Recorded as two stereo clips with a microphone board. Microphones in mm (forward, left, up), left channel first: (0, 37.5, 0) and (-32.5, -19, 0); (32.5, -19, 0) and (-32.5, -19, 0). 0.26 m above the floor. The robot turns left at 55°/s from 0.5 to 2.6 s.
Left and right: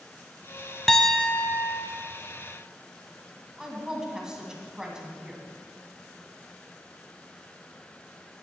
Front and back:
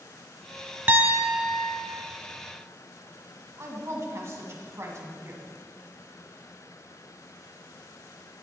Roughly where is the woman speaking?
Behind.